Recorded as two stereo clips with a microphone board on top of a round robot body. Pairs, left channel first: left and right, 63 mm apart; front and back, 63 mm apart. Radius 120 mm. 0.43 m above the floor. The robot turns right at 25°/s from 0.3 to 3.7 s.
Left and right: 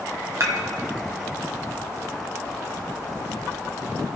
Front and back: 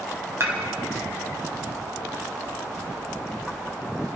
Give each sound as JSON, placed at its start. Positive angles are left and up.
{"t": 0.4, "sound": "dishes clattering", "azimuth_deg": -135, "distance_m": 2.5}